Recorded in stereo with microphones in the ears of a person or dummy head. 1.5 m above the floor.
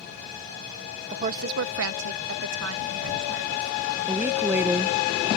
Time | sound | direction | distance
1.1 | a woman speaking | 30° right (ahead or behind) | ?
4.1 | a woman speaking | 10° right (ahead or behind) | ?